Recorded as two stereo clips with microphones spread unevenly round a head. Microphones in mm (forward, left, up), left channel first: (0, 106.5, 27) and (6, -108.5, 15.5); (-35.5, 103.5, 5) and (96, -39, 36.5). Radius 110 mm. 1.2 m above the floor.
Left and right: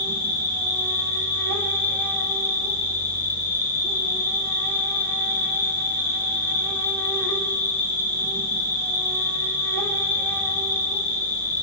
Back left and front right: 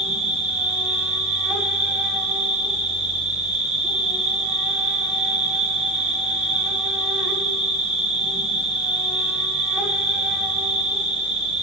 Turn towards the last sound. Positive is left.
turn(degrees=20)